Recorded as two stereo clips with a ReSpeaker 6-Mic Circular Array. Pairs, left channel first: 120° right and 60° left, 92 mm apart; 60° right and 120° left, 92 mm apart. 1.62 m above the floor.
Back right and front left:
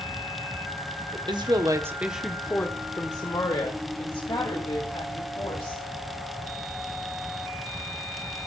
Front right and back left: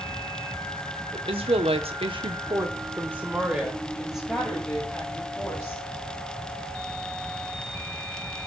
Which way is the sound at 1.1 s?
95° left.